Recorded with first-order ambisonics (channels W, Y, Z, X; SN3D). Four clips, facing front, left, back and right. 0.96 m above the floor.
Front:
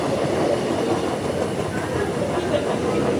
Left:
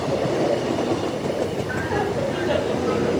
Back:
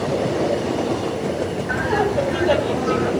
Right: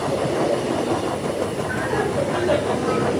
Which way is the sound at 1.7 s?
175° right.